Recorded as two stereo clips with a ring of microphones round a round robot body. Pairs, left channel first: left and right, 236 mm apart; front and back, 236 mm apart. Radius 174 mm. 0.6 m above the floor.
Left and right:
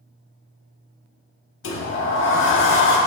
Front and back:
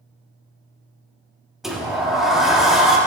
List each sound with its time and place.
1.6 s a sliding door: 90° left, 0.9 m